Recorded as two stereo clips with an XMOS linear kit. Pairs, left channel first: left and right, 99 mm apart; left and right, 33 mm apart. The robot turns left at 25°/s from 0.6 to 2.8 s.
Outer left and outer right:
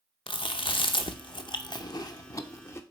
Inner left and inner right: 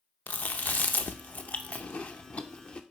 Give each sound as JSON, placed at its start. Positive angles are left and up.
{"t": 0.3, "sound": "chewing", "side_deg": 60, "distance_m": 0.6}